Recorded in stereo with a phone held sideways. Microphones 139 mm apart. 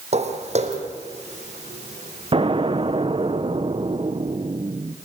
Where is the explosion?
40° right (ahead or behind), 0.8 m.